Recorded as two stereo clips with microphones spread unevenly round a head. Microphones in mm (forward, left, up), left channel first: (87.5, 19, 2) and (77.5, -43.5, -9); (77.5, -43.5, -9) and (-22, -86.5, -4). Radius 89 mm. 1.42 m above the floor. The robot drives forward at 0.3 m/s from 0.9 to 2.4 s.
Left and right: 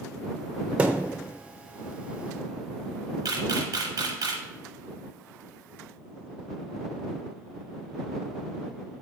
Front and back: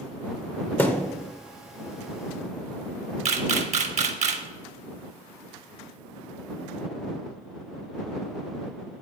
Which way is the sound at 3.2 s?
145° right.